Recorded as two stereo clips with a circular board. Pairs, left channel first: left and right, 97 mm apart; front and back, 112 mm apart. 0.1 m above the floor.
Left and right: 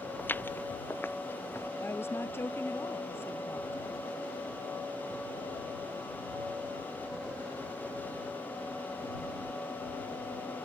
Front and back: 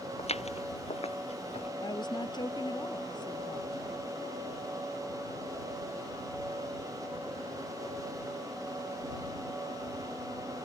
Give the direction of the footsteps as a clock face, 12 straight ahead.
11 o'clock.